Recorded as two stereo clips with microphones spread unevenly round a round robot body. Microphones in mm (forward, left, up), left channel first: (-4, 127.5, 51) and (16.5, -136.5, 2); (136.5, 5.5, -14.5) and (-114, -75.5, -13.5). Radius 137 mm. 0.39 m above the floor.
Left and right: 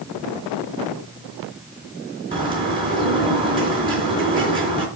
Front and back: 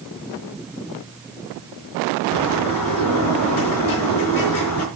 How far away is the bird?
About 4 m.